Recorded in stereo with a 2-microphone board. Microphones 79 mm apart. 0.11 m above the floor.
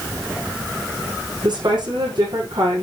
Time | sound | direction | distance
1.4 | a woman speaking | 75° right (ahead or behind) | 5.5 m